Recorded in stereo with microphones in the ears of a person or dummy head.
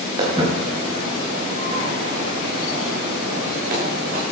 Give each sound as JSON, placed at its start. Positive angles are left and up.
{"t": 0.2, "sound": "footsteps", "side_deg": -30, "distance_m": 7.5}